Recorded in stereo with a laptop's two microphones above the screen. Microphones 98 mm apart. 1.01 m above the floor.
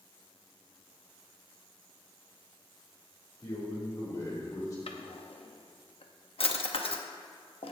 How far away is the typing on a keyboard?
I don't hear typing on a keyboard.